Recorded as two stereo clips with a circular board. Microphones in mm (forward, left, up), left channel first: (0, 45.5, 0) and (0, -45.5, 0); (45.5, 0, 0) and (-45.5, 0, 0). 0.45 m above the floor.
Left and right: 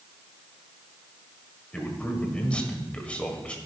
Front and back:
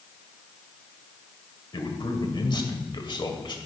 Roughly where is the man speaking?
Ahead.